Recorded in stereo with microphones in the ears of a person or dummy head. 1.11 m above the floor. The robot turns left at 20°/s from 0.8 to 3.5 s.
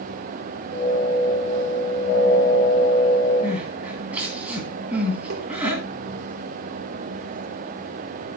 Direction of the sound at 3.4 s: 5° right (ahead or behind).